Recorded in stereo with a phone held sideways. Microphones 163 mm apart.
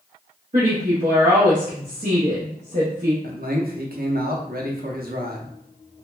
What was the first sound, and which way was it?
A woman speaking, 50° right (ahead or behind).